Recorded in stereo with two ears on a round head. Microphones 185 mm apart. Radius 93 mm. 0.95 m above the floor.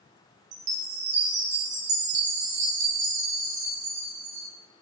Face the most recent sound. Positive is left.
turn(degrees=-35)  # may be behind; listen again after turning